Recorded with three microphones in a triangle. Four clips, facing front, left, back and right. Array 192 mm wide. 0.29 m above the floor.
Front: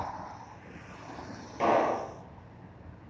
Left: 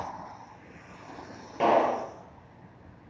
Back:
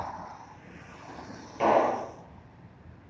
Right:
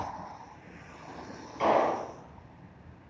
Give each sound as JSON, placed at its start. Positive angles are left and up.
{"t": 1.6, "sound": "a clap", "azimuth_deg": 95, "distance_m": 5.0}